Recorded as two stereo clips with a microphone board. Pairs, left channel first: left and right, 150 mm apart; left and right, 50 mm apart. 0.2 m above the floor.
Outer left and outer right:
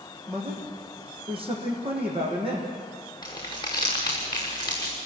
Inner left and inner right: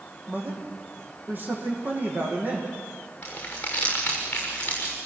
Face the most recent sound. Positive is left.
turn(degrees=25)  # may be behind; listen again after turning